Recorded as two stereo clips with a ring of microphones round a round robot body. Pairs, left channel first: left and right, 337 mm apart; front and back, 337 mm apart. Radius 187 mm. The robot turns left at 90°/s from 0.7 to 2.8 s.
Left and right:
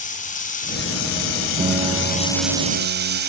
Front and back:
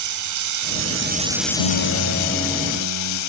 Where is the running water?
155° left, 1.9 m; by 3.3 s 35° right, 1.9 m.